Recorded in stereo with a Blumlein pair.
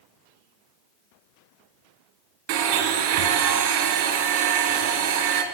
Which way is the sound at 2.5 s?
40° right.